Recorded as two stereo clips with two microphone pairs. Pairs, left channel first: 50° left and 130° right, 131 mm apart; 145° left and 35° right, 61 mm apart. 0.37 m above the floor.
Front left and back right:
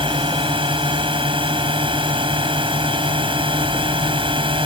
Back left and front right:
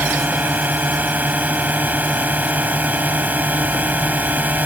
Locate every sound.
0.0 s a drone: 95° right